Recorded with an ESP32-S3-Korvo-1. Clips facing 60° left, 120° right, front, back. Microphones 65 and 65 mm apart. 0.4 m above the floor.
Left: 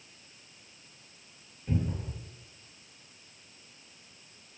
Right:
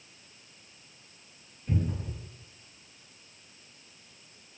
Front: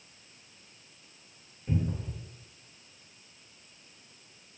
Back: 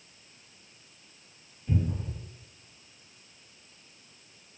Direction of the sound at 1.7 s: 5° right.